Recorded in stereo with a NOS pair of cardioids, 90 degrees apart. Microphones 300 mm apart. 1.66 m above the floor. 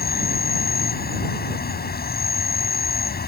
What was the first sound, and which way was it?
An insect, 30° left.